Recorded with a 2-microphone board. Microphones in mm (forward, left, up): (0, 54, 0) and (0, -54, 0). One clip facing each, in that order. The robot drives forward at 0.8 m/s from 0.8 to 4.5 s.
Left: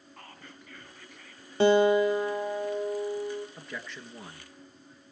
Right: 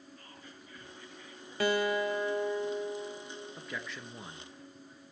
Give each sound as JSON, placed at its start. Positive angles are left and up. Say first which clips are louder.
{"t": 0.2, "sound": "whispering", "louder": "left 3 dB", "side_deg": 65, "distance_m": 3.0}
{"t": 1.6, "sound": "a guitar", "louder": "left 9 dB", "side_deg": 30, "distance_m": 1.6}
{"t": 3.6, "sound": "a man speaking", "louder": "even", "side_deg": 0, "distance_m": 3.5}